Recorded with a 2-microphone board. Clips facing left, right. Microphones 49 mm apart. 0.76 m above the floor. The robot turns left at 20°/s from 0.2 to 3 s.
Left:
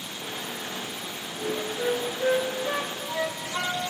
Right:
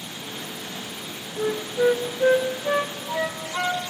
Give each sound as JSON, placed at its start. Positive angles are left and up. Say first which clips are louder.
{"t": 1.4, "sound": "a flute", "louder": "right 7 dB", "side_deg": -50, "distance_m": 0.5}